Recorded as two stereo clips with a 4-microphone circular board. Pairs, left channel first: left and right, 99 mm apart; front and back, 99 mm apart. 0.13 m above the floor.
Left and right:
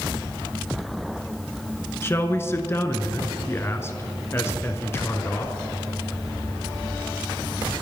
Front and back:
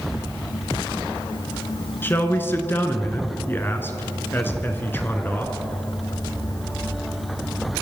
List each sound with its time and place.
2.0 s a man speaking: 50° left, 1.6 m